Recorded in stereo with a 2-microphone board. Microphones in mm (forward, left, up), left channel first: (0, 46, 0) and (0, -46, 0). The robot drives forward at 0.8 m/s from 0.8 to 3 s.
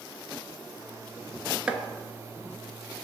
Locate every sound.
1.7 s chopping: 10° right (ahead or behind), 0.6 m